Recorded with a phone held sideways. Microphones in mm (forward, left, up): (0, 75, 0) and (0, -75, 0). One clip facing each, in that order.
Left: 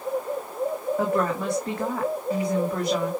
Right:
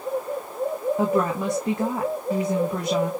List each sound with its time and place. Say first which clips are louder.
1.0 s a woman speaking: right 1 dB; 20° right (ahead or behind), 2 m